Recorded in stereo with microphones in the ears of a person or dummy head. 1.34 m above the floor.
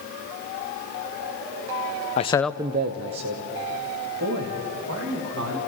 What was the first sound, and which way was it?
A man speaking, 40° left (ahead or behind).